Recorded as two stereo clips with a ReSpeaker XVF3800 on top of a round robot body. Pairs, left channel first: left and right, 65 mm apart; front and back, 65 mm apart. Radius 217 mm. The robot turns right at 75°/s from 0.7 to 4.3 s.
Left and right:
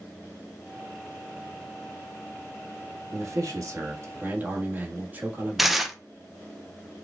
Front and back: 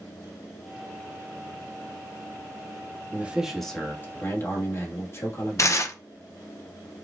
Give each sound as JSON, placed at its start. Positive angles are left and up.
{"t": 3.1, "sound": "a man speaking", "azimuth_deg": -125, "distance_m": 1.4}
{"t": 5.6, "sound": "tearing paper", "azimuth_deg": -5, "distance_m": 0.8}